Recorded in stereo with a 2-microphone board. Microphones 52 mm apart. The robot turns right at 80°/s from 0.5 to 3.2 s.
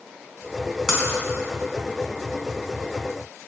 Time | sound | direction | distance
0.9 | breaking glass | 10° right (ahead or behind) | 4.5 m